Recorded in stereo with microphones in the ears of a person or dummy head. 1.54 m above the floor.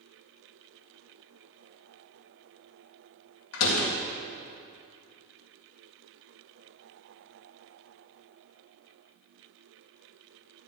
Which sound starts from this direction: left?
A door slam, at 3.5 s.